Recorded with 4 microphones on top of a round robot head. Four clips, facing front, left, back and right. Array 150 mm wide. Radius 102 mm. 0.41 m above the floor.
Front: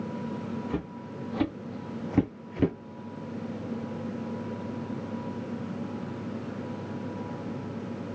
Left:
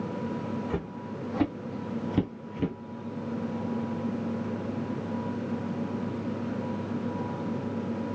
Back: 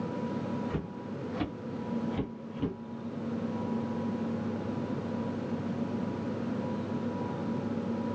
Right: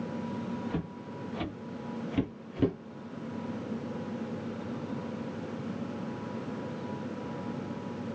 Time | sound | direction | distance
0.7 | footsteps | 65° left | 1.7 m